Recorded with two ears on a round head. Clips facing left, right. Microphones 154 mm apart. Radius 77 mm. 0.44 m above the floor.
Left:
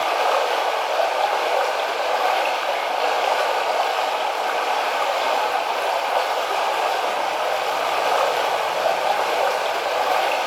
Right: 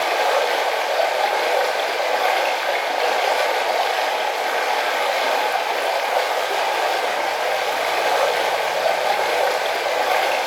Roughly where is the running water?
Centre.